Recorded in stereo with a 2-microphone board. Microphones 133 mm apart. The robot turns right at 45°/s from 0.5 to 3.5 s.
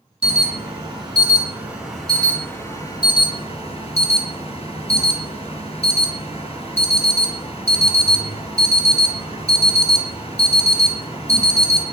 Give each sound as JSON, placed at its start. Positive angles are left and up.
{"t": 0.2, "sound": "an alarm", "azimuth_deg": -65, "distance_m": 3.0}